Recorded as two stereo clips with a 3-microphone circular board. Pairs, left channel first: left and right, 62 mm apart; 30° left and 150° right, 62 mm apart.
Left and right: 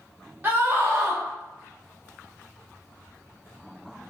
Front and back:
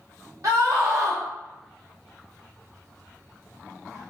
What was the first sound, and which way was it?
A scream, 145° right.